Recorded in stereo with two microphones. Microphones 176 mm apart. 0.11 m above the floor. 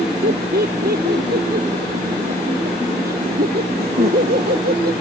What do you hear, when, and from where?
0.2 s laughter: 60° right (ahead or behind)